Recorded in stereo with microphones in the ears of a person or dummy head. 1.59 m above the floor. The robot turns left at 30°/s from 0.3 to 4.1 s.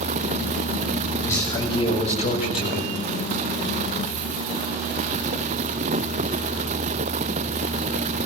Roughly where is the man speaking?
Behind.